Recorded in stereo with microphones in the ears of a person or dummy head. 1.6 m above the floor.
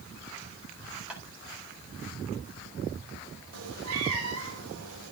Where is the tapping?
5° right (ahead or behind), 3.5 m.